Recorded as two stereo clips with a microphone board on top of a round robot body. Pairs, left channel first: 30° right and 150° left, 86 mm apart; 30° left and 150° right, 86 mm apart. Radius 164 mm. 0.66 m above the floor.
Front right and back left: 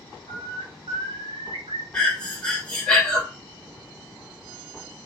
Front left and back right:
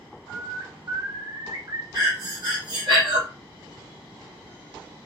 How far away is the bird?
About 0.5 m.